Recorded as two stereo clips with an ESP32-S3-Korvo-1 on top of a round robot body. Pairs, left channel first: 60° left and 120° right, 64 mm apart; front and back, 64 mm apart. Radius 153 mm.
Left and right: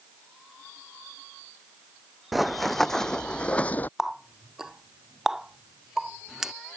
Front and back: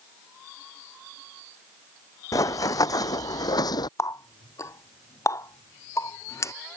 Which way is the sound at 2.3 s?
30° right.